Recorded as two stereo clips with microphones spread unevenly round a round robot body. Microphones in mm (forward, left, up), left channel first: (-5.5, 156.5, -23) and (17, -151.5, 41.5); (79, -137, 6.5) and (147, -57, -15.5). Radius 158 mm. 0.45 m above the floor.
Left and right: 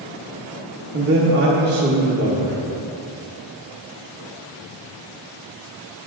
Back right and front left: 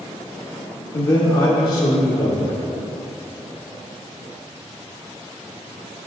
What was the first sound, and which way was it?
A man speaking, 135° right.